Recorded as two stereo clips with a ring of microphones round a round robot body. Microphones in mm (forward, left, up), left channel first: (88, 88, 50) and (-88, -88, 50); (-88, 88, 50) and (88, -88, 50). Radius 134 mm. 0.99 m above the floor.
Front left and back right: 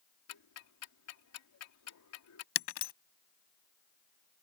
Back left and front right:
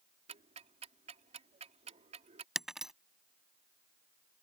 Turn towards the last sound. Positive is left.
turn(degrees=45)